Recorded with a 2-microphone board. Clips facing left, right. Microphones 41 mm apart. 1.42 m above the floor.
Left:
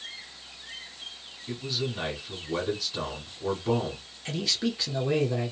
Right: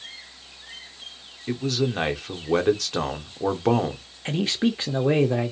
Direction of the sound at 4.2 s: 35° right (ahead or behind).